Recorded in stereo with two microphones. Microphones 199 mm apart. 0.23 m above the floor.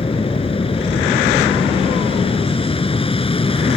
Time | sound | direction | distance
0.0 | an aircraft | 25° left (ahead or behind) | ?